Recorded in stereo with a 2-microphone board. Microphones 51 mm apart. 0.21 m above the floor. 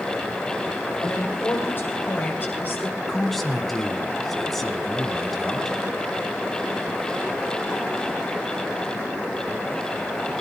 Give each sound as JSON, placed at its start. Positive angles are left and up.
{"t": 1.0, "sound": "a woman speaking", "side_deg": 45, "distance_m": 9.5}
{"t": 3.1, "sound": "a man speaking", "side_deg": 5, "distance_m": 1.9}